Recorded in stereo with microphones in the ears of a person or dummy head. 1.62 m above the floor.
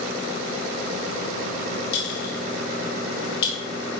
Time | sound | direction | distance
1.9 | a clink | 70° left (ahead or behind) | 2 m